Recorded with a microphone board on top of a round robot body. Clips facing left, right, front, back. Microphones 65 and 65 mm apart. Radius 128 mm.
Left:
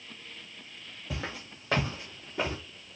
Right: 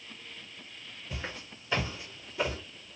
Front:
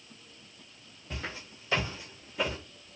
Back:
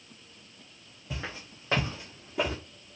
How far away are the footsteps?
About 1.1 m.